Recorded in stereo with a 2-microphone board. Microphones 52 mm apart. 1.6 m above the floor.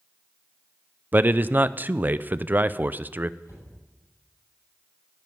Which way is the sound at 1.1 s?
35° right (ahead or behind).